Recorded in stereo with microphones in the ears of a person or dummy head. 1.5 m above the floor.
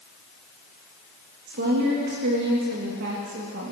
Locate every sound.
1.5 s a woman speaking: 60° right (ahead or behind), 2.5 m